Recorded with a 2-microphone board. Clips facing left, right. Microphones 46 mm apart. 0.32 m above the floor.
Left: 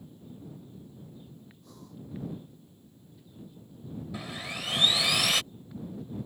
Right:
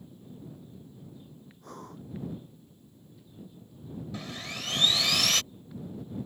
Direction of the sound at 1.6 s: 50° right (ahead or behind).